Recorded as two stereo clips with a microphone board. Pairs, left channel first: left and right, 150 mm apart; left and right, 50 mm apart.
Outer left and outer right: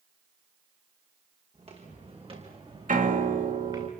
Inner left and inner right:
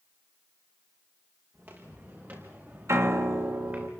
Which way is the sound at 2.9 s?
65° right (ahead or behind).